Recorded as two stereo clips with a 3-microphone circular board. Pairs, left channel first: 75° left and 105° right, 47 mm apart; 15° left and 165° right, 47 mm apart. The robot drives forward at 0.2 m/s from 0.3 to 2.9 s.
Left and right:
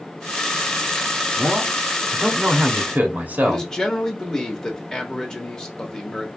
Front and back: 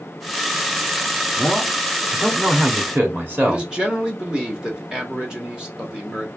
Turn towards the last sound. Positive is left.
turn(degrees=140)